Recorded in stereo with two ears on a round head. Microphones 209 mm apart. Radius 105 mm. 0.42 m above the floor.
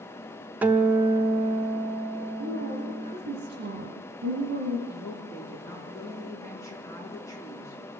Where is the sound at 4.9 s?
15° left (ahead or behind), 5 m.